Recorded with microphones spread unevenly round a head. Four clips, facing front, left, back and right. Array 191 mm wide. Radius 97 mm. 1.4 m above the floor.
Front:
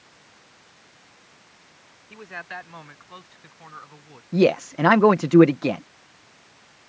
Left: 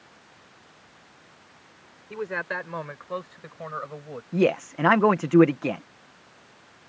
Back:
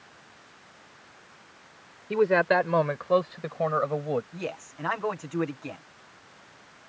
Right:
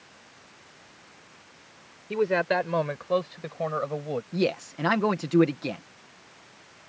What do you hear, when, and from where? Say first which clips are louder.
2.1 s a man speaking: right 7 dB, back 17 dB; 155° right
4.3 s a man speaking: left 7 dB, front 17 dB; 10° left